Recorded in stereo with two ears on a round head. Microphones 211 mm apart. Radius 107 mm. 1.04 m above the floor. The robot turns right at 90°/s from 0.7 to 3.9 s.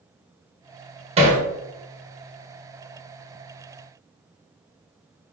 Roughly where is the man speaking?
I don't hear a man speaking.